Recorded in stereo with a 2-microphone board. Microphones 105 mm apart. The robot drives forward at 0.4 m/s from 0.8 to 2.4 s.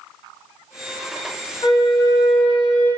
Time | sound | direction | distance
1.6 | a flute | 40° left (ahead or behind) | 1.6 m